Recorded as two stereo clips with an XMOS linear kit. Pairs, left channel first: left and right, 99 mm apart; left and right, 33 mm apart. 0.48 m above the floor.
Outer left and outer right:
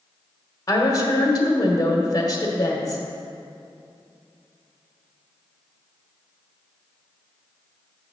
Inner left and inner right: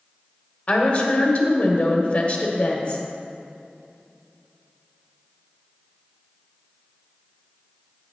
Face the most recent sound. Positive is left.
turn(degrees=40)  # may be behind; listen again after turning